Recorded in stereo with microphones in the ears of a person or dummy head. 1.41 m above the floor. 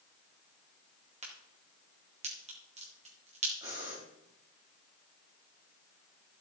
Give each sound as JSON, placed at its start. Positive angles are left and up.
{"t": 1.2, "sound": "a crack", "side_deg": -30, "distance_m": 2.0}
{"t": 3.6, "sound": "breathing", "side_deg": -15, "distance_m": 4.0}